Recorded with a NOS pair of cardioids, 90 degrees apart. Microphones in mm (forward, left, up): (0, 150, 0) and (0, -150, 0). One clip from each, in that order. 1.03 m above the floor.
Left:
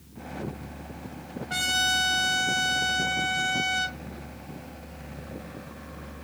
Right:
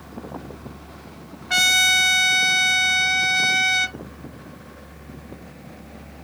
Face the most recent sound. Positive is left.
turn(degrees=-50)